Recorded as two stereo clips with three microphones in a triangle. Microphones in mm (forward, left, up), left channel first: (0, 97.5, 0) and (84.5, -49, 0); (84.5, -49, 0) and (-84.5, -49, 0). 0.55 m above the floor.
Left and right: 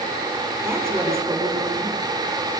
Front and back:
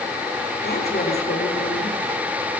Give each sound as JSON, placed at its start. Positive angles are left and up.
{"t": 0.6, "sound": "a woman speaking", "azimuth_deg": 15, "distance_m": 7.0}